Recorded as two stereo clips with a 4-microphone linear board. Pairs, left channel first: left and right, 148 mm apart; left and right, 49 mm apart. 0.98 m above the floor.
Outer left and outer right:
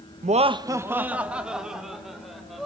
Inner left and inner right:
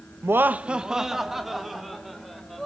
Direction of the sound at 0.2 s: 55° right (ahead or behind).